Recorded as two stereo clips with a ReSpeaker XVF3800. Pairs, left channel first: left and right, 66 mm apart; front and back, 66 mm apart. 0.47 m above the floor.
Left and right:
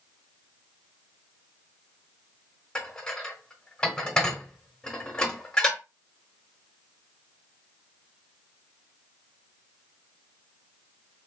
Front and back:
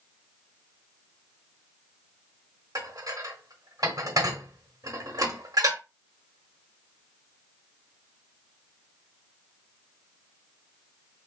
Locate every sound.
2.8 s dishes clattering: 170° left, 1.2 m